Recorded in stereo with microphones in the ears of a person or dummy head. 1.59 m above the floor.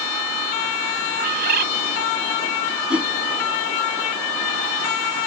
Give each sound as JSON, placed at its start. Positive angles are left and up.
{"t": 1.2, "sound": "a bird", "side_deg": -50}
{"t": 2.9, "sound": "a whoosh", "side_deg": -10}